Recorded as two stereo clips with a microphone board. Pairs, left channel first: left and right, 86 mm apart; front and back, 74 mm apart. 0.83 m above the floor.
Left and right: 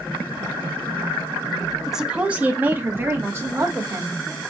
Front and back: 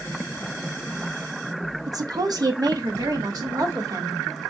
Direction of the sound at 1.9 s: 175° right.